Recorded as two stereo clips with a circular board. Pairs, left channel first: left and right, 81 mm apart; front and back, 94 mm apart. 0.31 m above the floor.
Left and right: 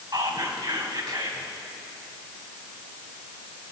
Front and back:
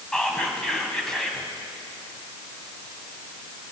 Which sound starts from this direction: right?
Whispering, at 0.1 s.